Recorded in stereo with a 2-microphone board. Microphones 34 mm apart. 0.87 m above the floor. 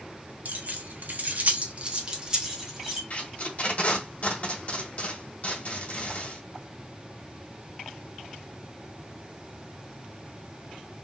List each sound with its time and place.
0.5 s keys jangling: 55° right (ahead or behind), 1.0 m; by 3.0 s 10° right (ahead or behind), 1.6 m
3.1 s tape being pulled: 45° left (ahead or behind), 1.4 m